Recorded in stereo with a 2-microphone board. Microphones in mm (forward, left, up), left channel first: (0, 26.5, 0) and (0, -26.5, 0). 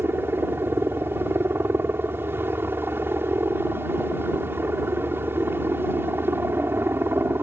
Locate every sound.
0.0 s a helicopter: 45° right (ahead or behind)